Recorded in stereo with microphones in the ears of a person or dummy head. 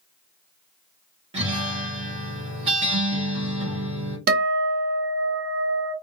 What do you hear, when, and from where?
1.3 s a guitar: 35° right (ahead or behind), 0.9 m
4.3 s a guitar: 45° right (ahead or behind), 0.7 m